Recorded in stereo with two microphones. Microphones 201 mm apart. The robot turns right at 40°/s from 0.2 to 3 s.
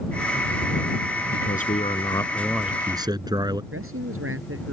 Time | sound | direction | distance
1.3 | a man speaking | 130° left | ?
3.7 | a man speaking | 85° right | ?